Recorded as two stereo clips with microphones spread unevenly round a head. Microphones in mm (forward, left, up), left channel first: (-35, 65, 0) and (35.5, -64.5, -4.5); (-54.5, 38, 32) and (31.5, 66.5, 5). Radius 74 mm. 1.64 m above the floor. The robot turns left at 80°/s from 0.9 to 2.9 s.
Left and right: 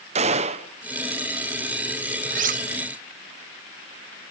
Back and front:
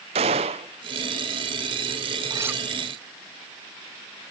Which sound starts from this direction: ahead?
A gunshot, at 0.1 s.